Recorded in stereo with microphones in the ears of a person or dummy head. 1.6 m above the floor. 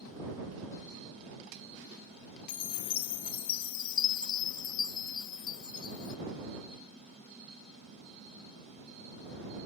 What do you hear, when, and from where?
2.5 s a chime: 45° left (ahead or behind)